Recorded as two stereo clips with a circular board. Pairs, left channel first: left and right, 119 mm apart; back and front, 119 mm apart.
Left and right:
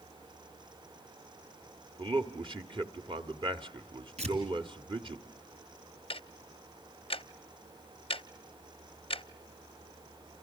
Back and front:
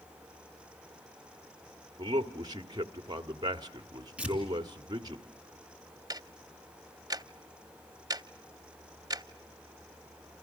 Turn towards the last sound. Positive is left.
turn(degrees=55)